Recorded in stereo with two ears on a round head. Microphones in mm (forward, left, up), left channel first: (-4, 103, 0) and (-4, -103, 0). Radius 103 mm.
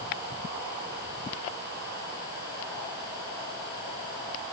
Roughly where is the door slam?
I don't hear a door slam.